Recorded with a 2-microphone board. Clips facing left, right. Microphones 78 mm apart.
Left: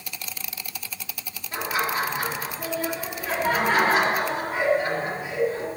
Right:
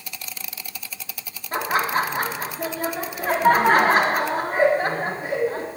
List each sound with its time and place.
1.5 s laughter: 45° right (ahead or behind), 1.4 m